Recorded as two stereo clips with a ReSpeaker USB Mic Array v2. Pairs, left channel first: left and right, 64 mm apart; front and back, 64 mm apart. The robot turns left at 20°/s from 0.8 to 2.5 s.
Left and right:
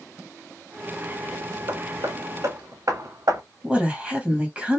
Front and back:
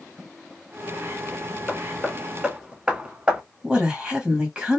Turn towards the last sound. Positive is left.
turn(degrees=-130)